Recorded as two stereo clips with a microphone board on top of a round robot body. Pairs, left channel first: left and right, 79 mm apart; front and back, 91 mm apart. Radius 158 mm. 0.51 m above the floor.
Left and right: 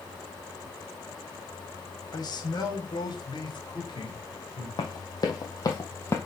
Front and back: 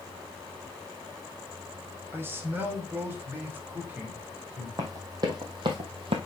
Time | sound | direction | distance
2.1 | a man speaking | 115° left | 2.5 m
4.8 | running footsteps | 130° left | 1.6 m